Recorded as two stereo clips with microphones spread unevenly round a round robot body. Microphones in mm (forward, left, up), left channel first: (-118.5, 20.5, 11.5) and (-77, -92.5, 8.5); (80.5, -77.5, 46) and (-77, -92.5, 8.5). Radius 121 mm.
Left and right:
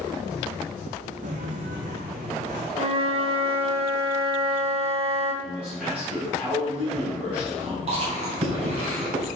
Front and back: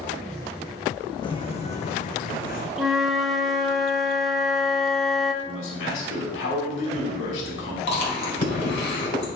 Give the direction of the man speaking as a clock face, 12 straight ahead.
12 o'clock.